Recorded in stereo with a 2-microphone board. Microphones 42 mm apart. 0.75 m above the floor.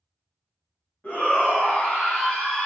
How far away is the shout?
About 1.5 m.